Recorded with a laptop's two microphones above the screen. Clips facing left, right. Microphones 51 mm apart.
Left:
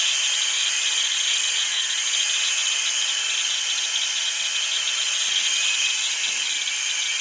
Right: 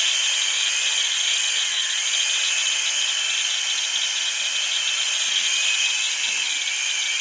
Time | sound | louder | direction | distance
0.0 | a machine running | right 1 dB | 25° right (ahead or behind) | 1.8 m